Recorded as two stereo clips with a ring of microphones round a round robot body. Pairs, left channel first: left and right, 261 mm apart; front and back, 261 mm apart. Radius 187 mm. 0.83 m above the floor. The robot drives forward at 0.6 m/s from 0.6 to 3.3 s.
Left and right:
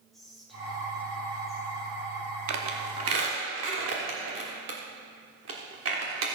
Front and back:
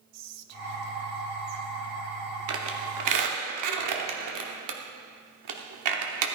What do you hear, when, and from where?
0.1 s whispering: straight behind, 0.9 m
2.5 s a squeak: 130° right, 0.8 m; by 6.3 s 150° right, 1.1 m